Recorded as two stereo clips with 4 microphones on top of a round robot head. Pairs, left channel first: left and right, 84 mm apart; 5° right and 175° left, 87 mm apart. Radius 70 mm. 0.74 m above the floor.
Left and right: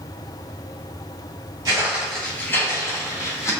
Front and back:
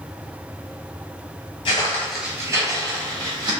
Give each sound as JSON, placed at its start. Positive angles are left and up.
{"t": 1.6, "sound": "footsteps", "azimuth_deg": -30, "distance_m": 0.9}